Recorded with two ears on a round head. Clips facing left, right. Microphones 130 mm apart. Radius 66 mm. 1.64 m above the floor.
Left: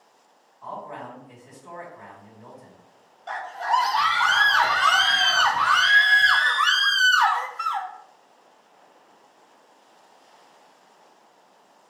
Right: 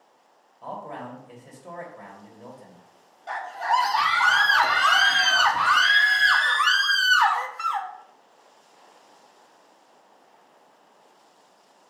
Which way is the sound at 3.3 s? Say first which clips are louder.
Even; 5° right (ahead or behind).